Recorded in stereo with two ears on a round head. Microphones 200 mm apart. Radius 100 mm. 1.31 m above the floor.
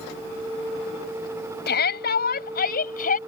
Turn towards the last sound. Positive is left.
turn(degrees=40)  # may be behind; listen again after turning